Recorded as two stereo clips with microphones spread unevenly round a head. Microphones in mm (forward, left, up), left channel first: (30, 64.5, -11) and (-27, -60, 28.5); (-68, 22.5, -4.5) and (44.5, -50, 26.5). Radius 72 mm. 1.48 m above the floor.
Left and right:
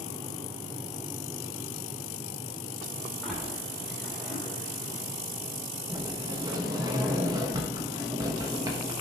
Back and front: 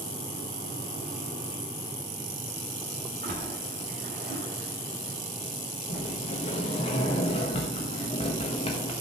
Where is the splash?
35° right, 2.5 m.